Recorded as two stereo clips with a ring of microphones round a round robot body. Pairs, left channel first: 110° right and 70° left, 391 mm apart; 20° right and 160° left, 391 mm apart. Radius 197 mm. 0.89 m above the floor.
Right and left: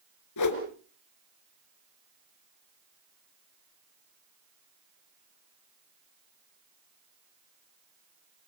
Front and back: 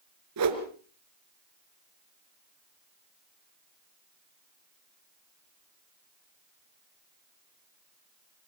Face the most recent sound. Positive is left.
turn(degrees=-155)